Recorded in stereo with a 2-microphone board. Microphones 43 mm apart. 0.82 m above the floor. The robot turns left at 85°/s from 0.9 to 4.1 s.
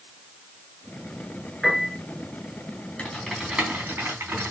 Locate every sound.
1.6 s a piano: 5° right (ahead or behind), 4.5 m; by 1.9 s 25° left (ahead or behind), 4.5 m
3.0 s typing on a keyboard: 30° left (ahead or behind), 3.5 m; by 4.5 s 65° right (ahead or behind), 3.5 m